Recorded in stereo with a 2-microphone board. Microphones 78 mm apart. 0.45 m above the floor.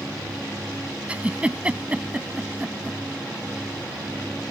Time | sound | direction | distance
1.1 | a giggle | 15° right (ahead or behind) | ?